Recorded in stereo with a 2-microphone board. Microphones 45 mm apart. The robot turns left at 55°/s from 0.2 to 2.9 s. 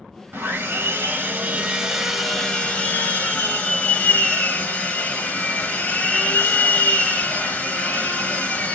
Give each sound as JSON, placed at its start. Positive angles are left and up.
{"t": 0.3, "sound": "sawing", "azimuth_deg": -80, "distance_m": 1.0}